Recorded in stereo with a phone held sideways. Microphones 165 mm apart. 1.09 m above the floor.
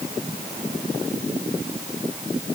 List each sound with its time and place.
Only background noise.